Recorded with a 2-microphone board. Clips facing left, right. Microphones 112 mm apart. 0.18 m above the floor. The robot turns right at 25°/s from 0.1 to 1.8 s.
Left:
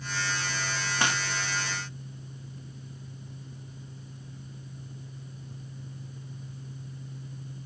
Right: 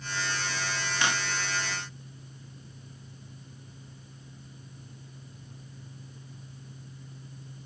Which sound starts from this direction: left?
Breaking glass, at 1.0 s.